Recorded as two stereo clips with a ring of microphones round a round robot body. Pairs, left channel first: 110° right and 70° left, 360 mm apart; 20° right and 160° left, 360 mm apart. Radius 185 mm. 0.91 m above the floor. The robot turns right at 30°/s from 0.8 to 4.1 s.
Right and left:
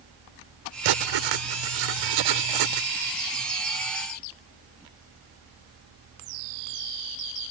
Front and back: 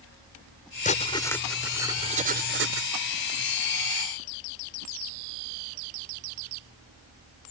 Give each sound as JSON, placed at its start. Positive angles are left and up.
{"t": 0.8, "sound": "writing", "azimuth_deg": 45}